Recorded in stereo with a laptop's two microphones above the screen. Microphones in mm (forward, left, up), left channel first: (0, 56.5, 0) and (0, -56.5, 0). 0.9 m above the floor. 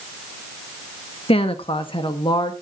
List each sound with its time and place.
1.3 s a woman speaking: 55° left (ahead or behind), 1.3 m; by 2.5 s 40° left (ahead or behind), 1.6 m